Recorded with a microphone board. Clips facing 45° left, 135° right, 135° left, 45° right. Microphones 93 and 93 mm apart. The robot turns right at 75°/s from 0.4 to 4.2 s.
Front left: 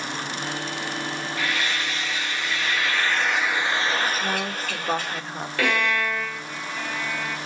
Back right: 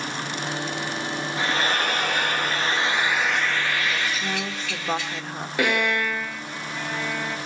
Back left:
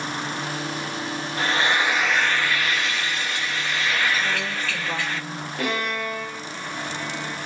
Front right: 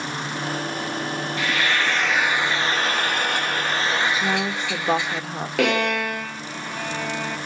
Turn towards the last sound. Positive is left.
turn(degrees=-60)